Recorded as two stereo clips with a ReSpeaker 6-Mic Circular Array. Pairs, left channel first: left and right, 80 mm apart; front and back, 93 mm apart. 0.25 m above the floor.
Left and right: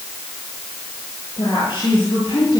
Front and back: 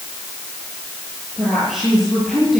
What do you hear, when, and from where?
1.4 s a woman speaking: 95° left, 7.5 m; by 2.6 s 90° left, 6 m